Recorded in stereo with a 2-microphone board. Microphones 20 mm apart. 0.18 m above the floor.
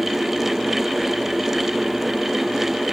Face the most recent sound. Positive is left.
No sound to turn to.